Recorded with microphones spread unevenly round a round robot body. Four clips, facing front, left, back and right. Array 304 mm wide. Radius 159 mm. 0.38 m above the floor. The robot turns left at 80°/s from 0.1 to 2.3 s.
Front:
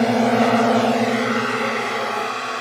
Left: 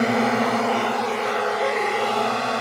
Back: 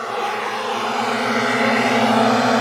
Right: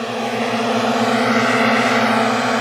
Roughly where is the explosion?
No explosion in this recording.